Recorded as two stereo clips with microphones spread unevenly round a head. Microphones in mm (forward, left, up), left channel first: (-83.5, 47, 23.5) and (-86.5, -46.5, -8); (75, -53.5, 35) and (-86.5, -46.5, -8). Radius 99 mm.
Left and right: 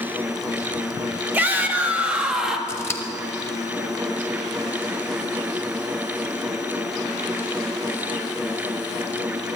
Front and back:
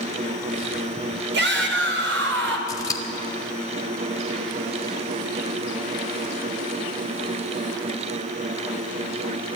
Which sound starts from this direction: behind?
A shout, at 1.3 s.